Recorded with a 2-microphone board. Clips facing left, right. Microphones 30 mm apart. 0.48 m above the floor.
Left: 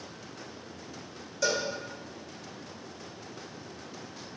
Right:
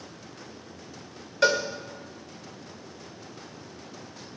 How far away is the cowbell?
About 1.7 m.